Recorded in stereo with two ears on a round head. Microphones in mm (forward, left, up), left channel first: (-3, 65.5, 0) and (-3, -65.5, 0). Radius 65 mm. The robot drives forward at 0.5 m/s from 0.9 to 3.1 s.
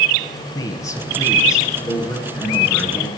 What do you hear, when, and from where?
0.6 s a man speaking: 25° left (ahead or behind), 3.5 m; by 3.1 s 20° left (ahead or behind), 4.5 m